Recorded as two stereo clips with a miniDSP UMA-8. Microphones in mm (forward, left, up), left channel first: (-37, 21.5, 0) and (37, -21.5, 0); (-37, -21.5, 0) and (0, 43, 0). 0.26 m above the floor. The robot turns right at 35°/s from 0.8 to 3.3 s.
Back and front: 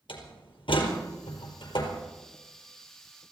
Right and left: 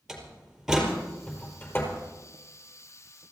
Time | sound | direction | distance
0.1 | a door slam | 145° left | 4.5 m